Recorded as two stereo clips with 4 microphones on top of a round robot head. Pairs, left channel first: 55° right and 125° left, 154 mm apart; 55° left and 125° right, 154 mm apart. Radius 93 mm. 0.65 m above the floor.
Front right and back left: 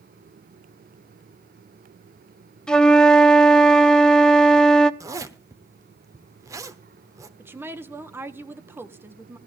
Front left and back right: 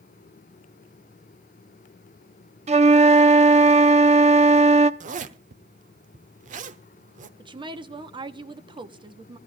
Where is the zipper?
165° right, 0.9 m.